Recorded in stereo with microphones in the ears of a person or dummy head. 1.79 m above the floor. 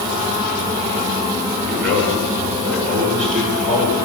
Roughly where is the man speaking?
Right.